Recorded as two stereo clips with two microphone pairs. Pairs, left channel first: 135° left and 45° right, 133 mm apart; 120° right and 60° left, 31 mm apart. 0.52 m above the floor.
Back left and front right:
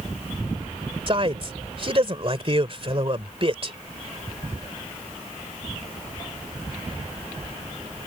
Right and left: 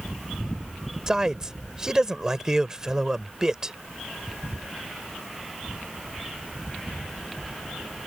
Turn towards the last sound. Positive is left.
turn(degrees=-5)